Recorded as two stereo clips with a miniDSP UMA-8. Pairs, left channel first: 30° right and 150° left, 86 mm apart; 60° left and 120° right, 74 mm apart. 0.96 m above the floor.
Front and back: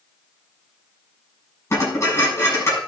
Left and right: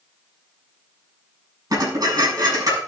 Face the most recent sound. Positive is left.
turn(degrees=-85)